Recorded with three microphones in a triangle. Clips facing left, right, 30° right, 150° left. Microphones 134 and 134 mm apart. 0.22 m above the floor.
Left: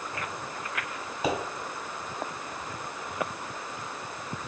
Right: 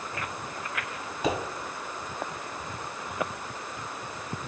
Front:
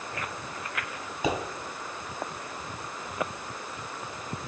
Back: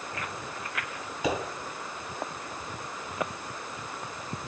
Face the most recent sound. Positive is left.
turn(degrees=15)